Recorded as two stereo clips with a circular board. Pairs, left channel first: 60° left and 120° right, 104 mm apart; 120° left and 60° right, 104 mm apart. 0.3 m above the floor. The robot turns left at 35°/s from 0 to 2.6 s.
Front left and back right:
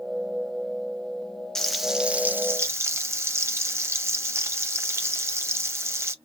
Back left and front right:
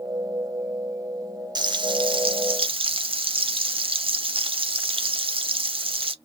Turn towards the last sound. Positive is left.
turn(degrees=-60)